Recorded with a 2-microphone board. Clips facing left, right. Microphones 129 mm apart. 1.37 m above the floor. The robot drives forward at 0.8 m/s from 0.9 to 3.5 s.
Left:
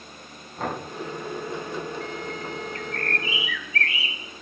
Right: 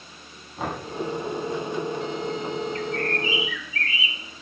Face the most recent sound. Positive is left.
turn(degrees=65)  # may be behind; listen again after turning